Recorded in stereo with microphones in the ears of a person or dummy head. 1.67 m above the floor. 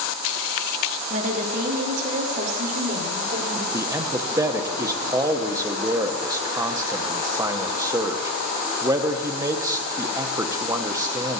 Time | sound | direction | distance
1.1 | a woman speaking | 40° right (ahead or behind) | 2.5 m
3.7 | a man speaking | 15° right (ahead or behind) | 0.6 m